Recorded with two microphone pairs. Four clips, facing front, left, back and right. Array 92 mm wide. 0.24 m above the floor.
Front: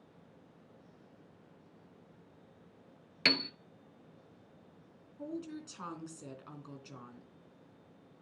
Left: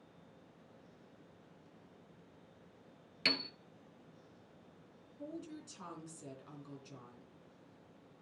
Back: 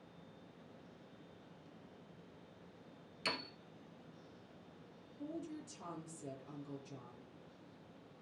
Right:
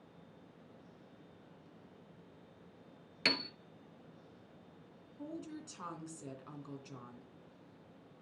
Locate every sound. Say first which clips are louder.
3.2 s a piano: right 2 dB, front 9 dB; 20° right, 1.1 m
5.2 s a woman speaking: right 1 dB, front 4 dB; 30° right, 3 m